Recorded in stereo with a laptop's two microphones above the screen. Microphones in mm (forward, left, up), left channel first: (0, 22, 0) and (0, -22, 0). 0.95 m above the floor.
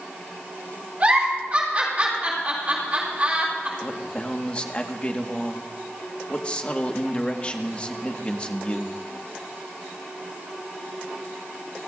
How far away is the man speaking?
About 1.5 m.